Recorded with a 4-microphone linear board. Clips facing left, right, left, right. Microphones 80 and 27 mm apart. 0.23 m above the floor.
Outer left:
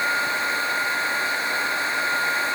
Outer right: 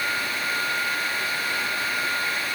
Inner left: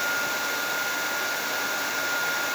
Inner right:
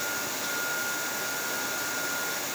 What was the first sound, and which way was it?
Only background noise.